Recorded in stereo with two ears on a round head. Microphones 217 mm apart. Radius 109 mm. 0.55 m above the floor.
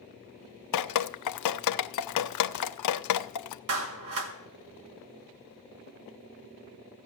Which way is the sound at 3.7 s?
60° right (ahead or behind).